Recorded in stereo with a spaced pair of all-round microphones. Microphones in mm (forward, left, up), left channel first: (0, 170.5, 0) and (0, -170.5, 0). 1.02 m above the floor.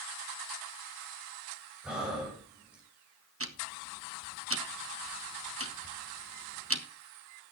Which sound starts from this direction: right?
Ticking, at 3.4 s.